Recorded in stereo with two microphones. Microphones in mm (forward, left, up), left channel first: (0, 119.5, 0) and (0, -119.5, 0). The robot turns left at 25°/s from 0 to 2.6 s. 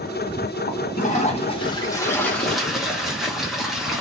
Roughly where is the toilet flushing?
Ahead left.